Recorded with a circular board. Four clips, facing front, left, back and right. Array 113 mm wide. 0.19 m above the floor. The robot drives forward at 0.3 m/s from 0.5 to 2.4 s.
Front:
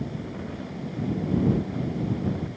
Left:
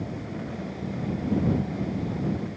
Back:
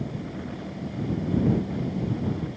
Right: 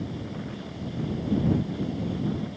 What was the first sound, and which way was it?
Only background noise.